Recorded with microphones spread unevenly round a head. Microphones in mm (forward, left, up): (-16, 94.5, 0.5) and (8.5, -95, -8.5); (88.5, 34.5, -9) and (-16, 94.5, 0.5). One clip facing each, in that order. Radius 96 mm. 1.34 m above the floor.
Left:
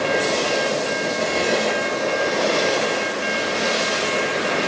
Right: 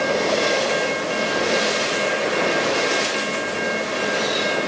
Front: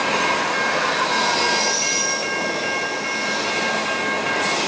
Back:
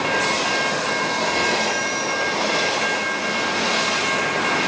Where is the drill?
No drill in this recording.